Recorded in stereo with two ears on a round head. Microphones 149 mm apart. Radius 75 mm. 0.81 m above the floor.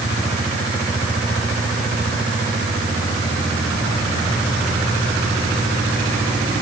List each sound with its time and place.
Only background noise.